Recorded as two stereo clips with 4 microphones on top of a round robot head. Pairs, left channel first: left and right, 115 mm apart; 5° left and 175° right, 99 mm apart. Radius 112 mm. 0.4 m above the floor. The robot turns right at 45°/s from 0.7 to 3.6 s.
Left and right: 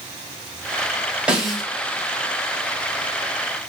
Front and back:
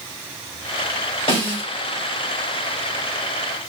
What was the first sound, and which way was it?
A snare drum, 10° right.